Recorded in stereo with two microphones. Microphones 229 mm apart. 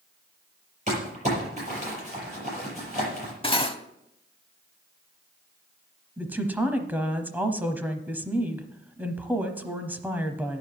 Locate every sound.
0.9 s crumpling: 30° right (ahead or behind), 6.5 m
3.4 s cutlery clinking: 25° left (ahead or behind), 0.7 m
6.2 s a woman speaking: 10° right (ahead or behind), 1.0 m